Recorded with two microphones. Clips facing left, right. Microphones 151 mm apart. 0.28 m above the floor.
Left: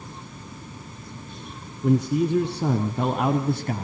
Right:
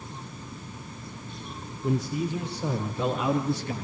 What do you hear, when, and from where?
1.8 s a man speaking: 65° left (ahead or behind), 3.5 m; by 3.9 s 50° left (ahead or behind), 2 m